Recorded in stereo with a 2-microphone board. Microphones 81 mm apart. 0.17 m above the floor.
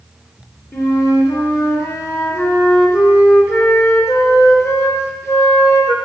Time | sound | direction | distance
0.7 | a flute | 35° left (ahead or behind) | 3 m